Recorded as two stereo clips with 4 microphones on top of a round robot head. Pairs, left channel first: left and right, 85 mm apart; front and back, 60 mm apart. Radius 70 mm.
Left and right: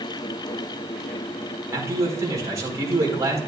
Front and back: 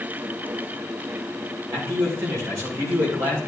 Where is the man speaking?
140° right, 4.5 m.